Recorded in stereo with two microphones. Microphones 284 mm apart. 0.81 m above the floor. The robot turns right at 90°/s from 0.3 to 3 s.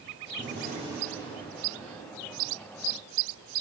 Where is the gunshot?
60° right, 3.5 m; by 2.4 s 120° left, 3.5 m.